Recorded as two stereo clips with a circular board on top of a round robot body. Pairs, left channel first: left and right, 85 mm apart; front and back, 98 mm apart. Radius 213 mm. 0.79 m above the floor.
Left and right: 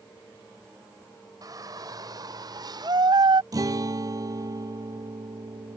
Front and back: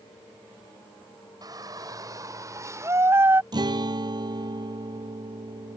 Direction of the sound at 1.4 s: 135° right.